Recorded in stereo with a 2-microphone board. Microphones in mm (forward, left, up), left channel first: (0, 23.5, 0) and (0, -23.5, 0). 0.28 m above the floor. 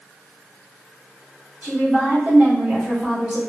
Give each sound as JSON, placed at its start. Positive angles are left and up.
{"t": 1.6, "sound": "a woman speaking", "side_deg": -35, "distance_m": 1.5}